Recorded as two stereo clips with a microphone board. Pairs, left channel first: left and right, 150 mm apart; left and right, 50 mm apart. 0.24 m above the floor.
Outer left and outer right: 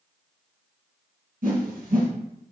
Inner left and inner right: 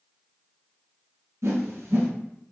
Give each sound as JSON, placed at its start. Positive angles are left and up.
{"t": 1.4, "sound": "a whoosh", "side_deg": -75, "distance_m": 2.0}